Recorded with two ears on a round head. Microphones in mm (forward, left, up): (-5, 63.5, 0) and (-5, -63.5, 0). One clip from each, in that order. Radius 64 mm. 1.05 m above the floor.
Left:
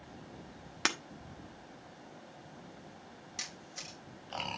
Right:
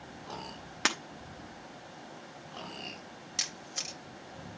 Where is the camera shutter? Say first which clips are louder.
Right 8 dB; 30° right (ahead or behind), 1.0 m.